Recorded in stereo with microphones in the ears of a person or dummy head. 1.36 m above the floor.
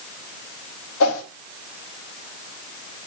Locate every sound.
1.0 s a whoosh: 75° left (ahead or behind), 1.1 m